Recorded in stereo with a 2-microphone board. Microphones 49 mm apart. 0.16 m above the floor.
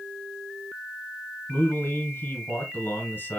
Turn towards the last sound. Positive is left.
turn(degrees=40)  # may be behind; listen again after turning